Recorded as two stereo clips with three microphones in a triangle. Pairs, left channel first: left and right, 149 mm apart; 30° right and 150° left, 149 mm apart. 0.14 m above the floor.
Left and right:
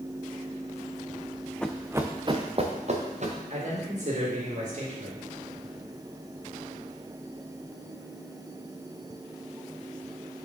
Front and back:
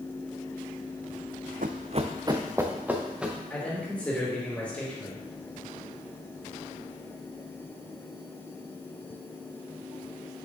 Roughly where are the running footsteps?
Behind.